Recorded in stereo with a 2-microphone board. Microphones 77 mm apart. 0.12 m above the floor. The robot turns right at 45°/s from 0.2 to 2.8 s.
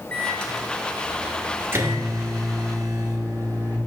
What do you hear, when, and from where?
0.1 s a microwave: 155° left, 1.4 m; by 3.8 s 85° right, 1.4 m